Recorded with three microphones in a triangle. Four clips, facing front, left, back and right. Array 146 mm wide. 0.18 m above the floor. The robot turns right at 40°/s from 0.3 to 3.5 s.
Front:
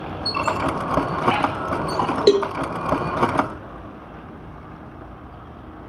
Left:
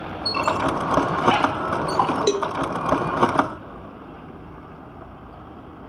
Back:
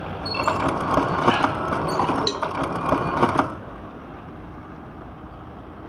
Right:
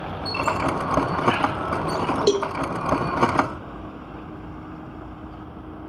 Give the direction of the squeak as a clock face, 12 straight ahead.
11 o'clock.